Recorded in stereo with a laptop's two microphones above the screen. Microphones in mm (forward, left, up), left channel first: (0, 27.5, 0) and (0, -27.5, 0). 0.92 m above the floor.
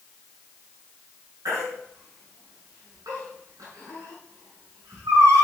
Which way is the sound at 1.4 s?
85° right.